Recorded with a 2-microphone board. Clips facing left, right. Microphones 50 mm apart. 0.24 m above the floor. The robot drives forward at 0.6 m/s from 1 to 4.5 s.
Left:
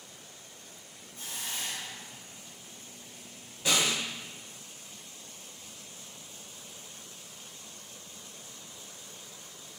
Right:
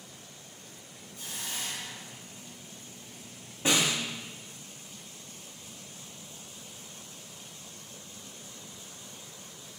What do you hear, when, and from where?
1.1 s a hiss: 30° left (ahead or behind), 1.5 m; by 2.5 s 45° left (ahead or behind), 1.1 m
3.6 s a snare drum: 30° right (ahead or behind), 1.0 m